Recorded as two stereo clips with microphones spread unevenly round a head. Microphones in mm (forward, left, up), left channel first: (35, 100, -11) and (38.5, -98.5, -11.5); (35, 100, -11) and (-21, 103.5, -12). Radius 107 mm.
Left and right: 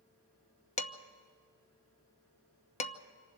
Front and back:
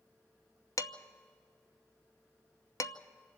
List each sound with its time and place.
0.8 s dishes clattering: 30° left, 0.9 m